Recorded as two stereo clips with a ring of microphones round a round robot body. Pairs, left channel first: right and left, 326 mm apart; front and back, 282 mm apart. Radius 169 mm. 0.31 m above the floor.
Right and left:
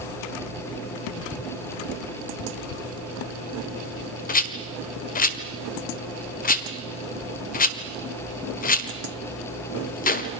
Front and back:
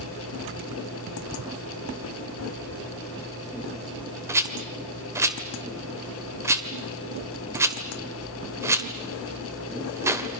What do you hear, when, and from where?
4.3 s a rattle: 110° right, 1.6 m